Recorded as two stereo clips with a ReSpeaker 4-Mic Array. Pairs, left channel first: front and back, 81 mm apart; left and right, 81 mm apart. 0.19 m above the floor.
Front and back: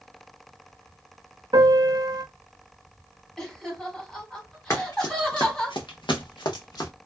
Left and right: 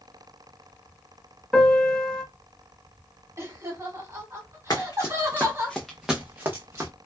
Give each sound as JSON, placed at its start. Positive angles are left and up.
{"t": 1.5, "sound": "a piano", "azimuth_deg": 170, "distance_m": 0.7}
{"t": 3.4, "sound": "laughter", "azimuth_deg": -75, "distance_m": 1.3}
{"t": 4.7, "sound": "running footsteps", "azimuth_deg": 50, "distance_m": 0.9}